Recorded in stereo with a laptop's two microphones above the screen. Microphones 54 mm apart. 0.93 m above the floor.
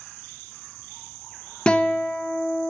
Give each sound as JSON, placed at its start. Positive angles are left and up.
{"t": 1.7, "sound": "a guitar", "side_deg": 20, "distance_m": 0.7}